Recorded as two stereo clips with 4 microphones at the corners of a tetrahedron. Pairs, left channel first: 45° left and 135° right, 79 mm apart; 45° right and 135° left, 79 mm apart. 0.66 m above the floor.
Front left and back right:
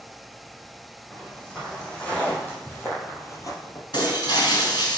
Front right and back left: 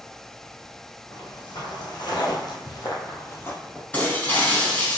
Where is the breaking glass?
25° left, 3 m.